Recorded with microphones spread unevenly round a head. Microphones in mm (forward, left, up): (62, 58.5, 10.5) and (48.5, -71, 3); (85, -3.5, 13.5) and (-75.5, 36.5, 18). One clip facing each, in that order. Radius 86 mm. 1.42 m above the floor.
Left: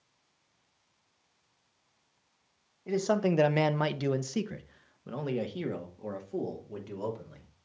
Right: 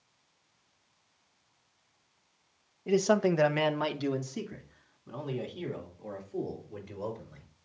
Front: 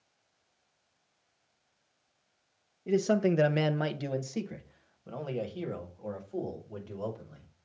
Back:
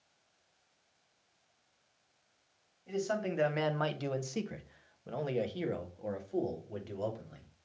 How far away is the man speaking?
About 0.6 m.